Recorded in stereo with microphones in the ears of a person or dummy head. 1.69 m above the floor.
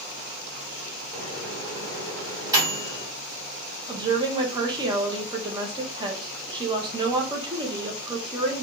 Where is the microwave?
15° right (ahead or behind), 1.6 m.